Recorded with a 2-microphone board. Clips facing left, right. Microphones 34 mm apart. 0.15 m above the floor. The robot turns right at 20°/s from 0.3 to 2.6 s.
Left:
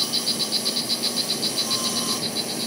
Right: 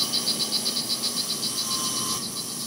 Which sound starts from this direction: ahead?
An insect, at 0.0 s.